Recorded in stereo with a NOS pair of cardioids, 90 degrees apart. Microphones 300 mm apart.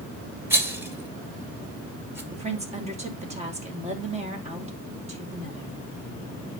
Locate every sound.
0.5 s a rattle: 5° right, 2.5 m
2.3 s a woman speaking: 20° right, 2.5 m